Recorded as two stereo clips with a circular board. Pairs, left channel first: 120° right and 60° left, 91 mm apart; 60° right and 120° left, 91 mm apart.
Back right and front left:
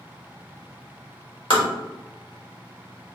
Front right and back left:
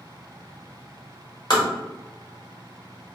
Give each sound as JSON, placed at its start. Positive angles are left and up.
{"t": 1.5, "sound": "tapping", "azimuth_deg": -100, "distance_m": 1.1}